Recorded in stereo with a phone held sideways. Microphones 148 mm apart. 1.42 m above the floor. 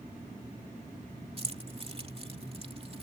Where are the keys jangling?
40° right (ahead or behind).